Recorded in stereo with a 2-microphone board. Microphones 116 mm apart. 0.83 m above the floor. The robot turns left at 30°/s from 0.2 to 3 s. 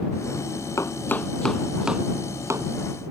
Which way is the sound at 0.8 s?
25° left (ahead or behind).